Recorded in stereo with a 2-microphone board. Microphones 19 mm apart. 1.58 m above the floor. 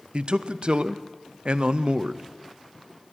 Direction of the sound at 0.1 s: 60° right (ahead or behind).